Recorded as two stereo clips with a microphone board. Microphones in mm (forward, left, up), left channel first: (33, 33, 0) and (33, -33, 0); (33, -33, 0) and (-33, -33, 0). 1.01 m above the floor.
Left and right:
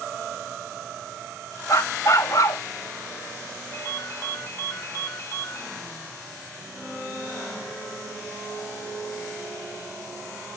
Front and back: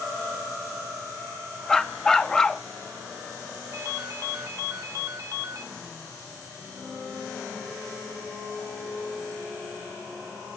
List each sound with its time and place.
1.7 s a dog barking: 75° left, 0.6 m
3.7 s a ringtone: 140° left, 1.5 m